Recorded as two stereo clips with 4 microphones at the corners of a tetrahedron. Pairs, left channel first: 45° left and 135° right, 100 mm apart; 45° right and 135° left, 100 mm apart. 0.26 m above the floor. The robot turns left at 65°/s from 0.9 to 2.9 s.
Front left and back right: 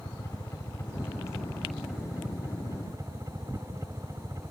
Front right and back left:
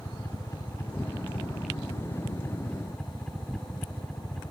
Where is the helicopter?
5° left; by 4.5 s 125° right.